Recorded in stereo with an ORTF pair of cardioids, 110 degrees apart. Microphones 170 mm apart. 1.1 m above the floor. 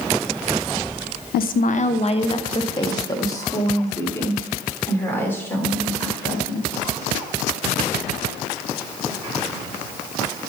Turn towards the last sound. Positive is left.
turn(degrees=10)